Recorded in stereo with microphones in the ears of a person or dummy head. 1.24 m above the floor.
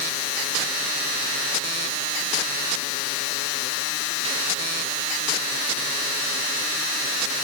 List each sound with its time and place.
Only background noise.